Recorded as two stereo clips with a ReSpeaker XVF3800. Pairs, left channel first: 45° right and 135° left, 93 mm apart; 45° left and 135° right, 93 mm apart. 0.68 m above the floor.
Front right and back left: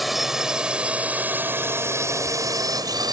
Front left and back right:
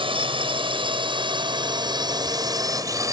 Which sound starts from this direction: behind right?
A drone, at 0.0 s.